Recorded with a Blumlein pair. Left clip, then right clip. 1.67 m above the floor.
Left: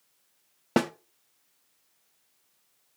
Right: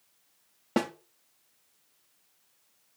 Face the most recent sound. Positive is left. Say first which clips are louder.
# left 3 dB
turn(degrees=20)